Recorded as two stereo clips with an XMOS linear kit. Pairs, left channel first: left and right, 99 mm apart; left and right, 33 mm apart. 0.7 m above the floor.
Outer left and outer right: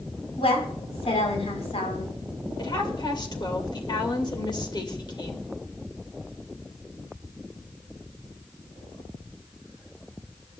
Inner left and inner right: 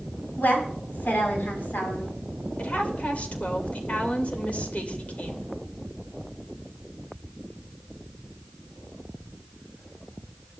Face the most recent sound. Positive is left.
turn(degrees=50)  # may be behind; listen again after turning